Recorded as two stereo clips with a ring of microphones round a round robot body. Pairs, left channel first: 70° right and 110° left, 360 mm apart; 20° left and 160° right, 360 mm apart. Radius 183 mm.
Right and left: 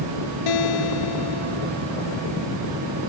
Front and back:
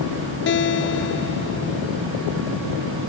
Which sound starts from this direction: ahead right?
A guitar, at 0.5 s.